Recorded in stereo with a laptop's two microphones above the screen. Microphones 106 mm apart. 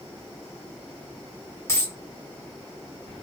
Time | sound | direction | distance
1.7 | a dropped coin | 30° left (ahead or behind) | 1.0 m